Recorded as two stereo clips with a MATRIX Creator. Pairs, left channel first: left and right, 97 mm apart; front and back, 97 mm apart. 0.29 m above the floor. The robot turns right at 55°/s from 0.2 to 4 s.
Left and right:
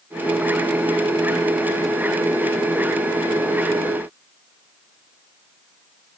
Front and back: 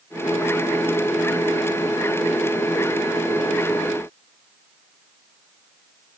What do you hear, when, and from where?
Only background noise.